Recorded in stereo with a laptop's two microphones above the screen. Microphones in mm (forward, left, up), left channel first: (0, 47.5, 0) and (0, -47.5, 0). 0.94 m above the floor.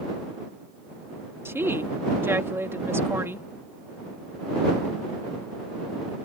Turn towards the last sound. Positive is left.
turn(degrees=-25)  # may be behind; listen again after turning